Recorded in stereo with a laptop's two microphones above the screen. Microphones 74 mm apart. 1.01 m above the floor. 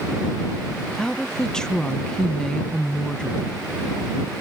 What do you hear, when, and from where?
1.0 s a woman speaking: 10° left (ahead or behind)